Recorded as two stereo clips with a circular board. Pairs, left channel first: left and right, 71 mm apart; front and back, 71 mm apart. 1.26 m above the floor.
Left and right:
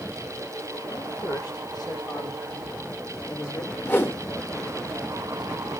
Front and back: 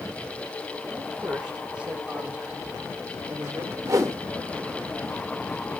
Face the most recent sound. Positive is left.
turn(degrees=145)